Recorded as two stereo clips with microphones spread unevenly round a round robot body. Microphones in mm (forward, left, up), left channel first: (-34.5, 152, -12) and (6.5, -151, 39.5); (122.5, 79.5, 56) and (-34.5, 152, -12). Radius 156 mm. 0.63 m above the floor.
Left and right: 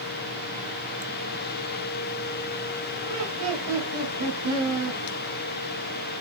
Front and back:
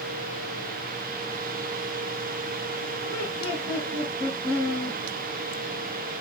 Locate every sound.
3.0 s laughter: 115° right, 4 m